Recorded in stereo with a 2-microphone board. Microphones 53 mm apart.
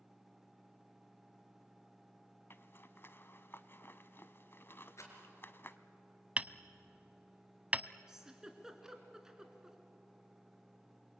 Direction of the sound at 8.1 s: 5° right (ahead or behind).